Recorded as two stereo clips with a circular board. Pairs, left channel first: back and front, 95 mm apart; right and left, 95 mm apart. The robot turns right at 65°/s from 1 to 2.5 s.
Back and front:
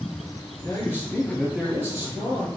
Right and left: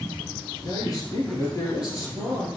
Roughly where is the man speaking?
Behind right.